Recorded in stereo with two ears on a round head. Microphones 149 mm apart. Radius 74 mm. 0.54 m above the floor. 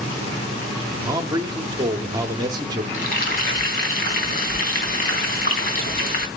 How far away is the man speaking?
About 1.1 m.